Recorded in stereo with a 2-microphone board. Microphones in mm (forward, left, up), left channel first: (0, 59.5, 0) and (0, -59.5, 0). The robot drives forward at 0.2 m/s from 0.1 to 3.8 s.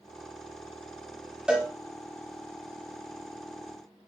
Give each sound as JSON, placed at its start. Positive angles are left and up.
{"t": 1.5, "sound": "a cowbell", "side_deg": -5, "distance_m": 0.8}